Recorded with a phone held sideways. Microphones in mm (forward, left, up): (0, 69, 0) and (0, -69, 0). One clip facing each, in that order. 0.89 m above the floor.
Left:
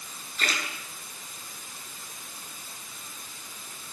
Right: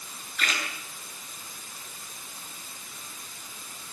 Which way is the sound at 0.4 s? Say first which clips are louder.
Even; 35° left (ahead or behind).